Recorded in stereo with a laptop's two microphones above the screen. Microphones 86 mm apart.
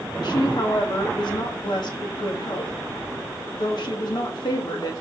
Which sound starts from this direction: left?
A woman speaking, at 0.2 s.